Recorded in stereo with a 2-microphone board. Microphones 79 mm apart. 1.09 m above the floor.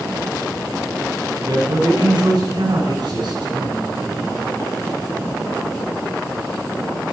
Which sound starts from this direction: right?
A man speaking, at 1.4 s.